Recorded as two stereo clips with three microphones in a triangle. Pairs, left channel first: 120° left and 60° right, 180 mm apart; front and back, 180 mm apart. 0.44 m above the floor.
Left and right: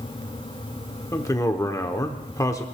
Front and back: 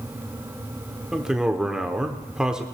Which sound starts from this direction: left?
A man speaking, at 1.1 s.